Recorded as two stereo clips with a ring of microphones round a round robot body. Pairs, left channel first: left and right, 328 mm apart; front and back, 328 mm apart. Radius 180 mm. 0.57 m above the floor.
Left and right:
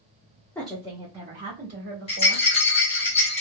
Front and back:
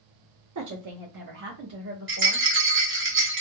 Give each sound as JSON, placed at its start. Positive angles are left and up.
{"t": 0.6, "sound": "a woman speaking", "azimuth_deg": 170, "distance_m": 0.8}
{"t": 2.1, "sound": "a rattle", "azimuth_deg": 150, "distance_m": 1.4}